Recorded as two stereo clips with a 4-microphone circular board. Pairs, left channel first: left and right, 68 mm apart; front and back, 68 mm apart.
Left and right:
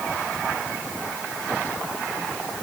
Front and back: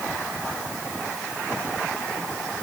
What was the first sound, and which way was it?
Only background noise.